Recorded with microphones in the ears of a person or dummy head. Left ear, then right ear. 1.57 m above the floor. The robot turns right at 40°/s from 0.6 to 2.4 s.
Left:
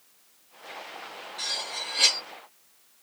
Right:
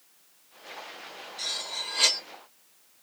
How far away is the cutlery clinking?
About 0.9 m.